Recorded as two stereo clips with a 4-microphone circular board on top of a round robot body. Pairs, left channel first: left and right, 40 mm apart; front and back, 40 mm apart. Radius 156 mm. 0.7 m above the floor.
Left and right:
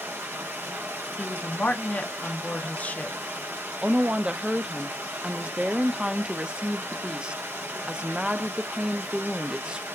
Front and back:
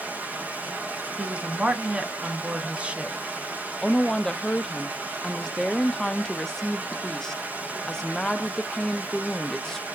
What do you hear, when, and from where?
0.0 s running water: 125° right, 0.7 m
1.2 s a woman speaking: 125° left, 1.1 m
3.8 s a woman speaking: 65° right, 0.5 m